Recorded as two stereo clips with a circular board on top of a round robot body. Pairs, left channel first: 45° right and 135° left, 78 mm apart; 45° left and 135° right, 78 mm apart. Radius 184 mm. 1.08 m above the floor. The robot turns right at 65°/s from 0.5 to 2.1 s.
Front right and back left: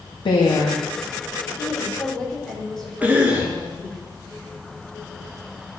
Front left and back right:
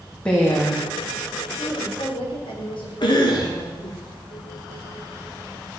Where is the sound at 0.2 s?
30° right, 1.8 m; by 0.9 s 5° right, 1.8 m.